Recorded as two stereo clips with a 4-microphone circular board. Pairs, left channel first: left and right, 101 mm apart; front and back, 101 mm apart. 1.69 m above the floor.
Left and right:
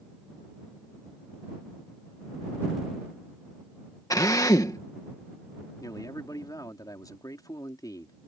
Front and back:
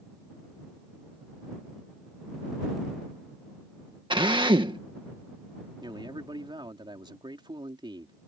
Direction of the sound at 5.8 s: 140° left.